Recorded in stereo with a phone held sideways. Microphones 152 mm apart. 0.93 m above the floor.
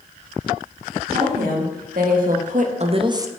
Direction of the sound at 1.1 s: 80° right.